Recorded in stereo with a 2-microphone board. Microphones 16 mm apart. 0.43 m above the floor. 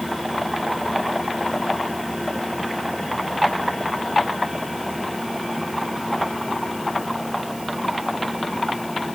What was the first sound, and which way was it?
Only background noise.